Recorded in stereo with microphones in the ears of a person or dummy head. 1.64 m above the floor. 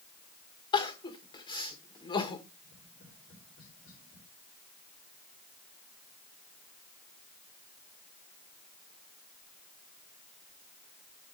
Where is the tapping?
50° left (ahead or behind), 5.5 m.